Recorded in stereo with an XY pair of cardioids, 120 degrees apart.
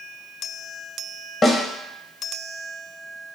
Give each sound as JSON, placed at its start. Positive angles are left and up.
{"t": 1.4, "sound": "a snare drum", "azimuth_deg": 30, "distance_m": 0.7}